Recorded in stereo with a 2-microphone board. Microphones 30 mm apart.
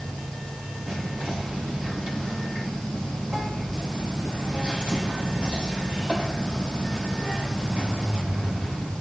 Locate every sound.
0.9 s whispering: 45° right (ahead or behind), 2 m